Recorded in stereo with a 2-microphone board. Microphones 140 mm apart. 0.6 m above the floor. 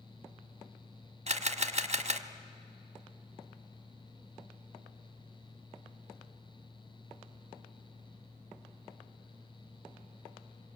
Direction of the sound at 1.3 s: 45° right (ahead or behind).